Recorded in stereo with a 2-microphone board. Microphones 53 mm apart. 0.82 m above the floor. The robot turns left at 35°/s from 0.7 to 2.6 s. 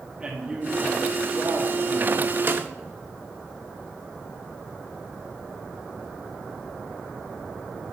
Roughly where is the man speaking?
Ahead right.